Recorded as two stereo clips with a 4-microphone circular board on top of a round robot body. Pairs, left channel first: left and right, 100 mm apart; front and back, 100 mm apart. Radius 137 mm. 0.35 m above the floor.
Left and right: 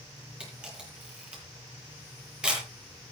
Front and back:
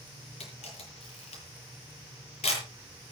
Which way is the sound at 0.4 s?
10° right.